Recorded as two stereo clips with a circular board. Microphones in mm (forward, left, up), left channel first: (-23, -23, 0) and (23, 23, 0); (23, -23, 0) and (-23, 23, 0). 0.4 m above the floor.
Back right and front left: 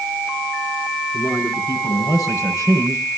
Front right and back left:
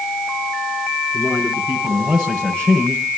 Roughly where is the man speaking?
Behind.